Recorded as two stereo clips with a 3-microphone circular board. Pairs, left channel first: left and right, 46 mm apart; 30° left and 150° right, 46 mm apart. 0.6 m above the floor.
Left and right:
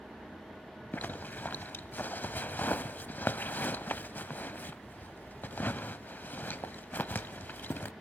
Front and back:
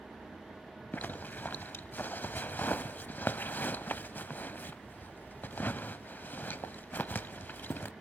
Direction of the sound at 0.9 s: 60° left.